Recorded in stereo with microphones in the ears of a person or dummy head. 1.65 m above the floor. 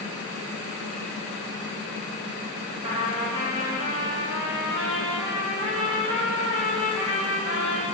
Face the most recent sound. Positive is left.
turn(degrees=-30)  # may be behind; listen again after turning